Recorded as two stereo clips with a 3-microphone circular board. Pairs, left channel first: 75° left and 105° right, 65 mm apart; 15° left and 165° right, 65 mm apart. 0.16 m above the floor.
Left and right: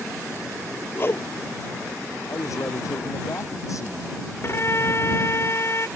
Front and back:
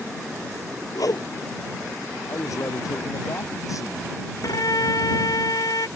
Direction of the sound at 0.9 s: 25° left.